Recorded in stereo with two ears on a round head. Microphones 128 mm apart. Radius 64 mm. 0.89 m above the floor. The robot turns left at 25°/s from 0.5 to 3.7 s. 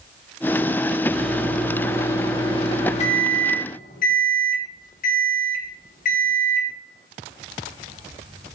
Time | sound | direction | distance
1.1 | a microwave | straight behind | 1.6 m